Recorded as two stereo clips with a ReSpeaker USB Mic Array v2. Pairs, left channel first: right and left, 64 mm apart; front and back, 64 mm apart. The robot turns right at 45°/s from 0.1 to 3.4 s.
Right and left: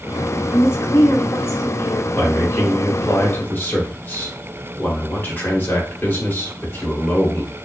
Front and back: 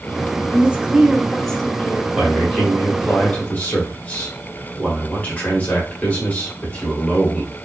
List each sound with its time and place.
0.5 s a woman speaking: 125° right, 1.1 m; by 2.0 s 60° right, 1.1 m
2.1 s a man speaking: 110° right, 1.8 m; by 7.5 s 55° right, 1.8 m